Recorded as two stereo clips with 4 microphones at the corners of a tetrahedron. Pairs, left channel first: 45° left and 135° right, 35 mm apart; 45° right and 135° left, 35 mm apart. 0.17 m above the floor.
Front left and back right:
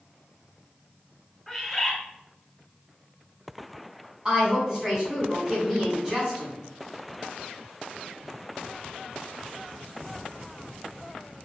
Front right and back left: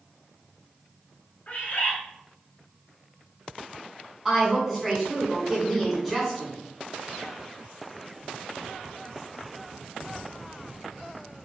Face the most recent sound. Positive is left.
turn(degrees=-160)